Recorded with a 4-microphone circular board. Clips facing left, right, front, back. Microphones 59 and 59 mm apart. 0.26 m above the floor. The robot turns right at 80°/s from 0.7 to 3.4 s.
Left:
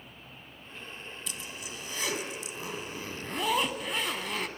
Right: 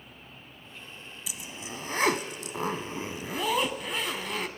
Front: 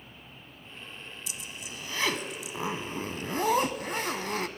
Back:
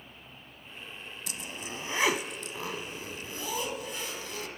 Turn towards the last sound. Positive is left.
turn(degrees=0)